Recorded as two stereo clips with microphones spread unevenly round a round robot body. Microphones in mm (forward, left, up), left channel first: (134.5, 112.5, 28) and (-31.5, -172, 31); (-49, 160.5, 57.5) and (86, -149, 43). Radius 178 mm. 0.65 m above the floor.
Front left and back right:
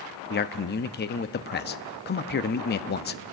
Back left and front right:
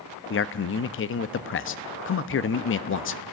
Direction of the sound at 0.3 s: 90° left.